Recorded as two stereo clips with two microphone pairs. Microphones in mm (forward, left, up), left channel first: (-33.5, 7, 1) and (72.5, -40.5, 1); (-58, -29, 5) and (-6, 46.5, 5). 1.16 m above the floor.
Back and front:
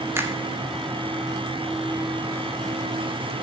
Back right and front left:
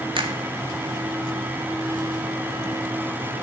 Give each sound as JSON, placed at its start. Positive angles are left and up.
{"t": 0.1, "sound": "a finger snap", "azimuth_deg": 40, "distance_m": 2.0}